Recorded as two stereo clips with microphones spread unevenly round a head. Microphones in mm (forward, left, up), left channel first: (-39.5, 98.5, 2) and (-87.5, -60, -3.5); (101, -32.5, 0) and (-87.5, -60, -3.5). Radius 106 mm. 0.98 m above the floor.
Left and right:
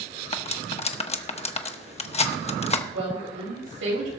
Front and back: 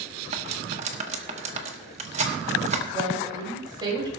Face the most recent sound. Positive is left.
turn(degrees=-105)